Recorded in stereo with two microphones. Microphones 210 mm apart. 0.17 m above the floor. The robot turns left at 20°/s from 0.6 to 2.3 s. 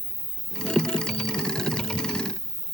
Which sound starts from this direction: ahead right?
An insect, at 0.0 s.